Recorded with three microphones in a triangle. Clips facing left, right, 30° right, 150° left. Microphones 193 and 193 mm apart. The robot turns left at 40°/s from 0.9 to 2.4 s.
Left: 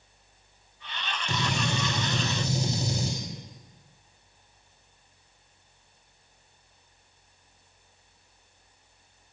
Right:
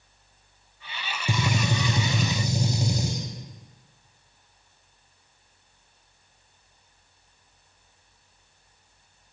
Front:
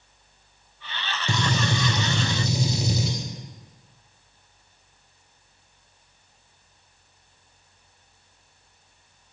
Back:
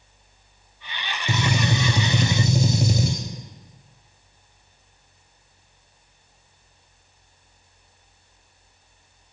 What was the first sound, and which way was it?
A gunshot, 120° right.